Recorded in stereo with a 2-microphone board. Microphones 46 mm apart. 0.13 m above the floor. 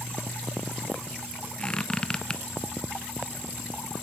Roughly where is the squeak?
Centre.